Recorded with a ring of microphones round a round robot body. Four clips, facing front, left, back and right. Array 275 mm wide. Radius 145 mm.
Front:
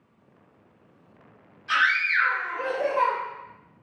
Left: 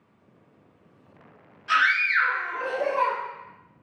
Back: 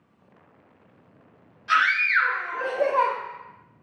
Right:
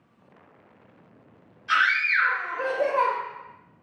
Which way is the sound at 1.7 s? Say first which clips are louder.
Left 1 dB, back 2 dB; 125° left.